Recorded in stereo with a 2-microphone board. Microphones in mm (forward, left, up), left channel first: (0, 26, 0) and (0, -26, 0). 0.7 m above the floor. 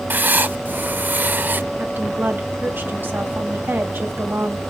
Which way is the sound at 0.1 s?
35° right (ahead or behind).